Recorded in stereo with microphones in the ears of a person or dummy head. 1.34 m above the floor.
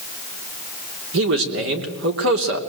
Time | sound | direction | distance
1.1 | a man speaking | 75° right (ahead or behind) | 3 m